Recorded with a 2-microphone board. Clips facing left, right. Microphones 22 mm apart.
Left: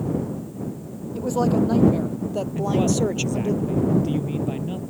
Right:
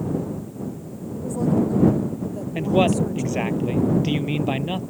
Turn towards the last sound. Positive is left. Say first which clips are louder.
# right 3 dB
turn(degrees=-50)  # may be behind; listen again after turning